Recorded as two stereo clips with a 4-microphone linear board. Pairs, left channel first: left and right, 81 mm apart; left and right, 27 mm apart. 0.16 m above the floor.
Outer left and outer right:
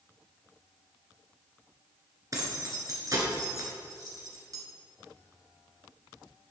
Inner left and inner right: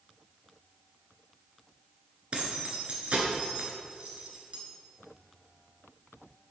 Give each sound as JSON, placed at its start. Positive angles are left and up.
{"t": 2.3, "sound": "keys jangling", "side_deg": -45, "distance_m": 1.7}